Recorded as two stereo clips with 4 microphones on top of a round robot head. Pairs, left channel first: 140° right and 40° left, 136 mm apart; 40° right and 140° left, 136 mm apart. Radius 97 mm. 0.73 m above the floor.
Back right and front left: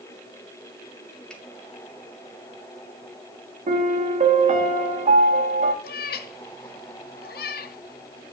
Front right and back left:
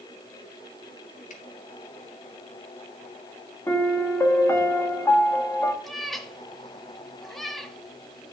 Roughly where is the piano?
Ahead left.